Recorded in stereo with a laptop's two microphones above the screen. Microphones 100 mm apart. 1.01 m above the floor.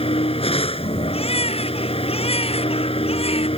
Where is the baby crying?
80° left.